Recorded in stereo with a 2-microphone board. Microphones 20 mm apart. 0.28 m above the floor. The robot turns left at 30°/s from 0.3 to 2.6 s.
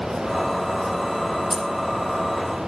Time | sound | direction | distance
1.5 | keys jangling | 60° right (ahead or behind) | 6.5 m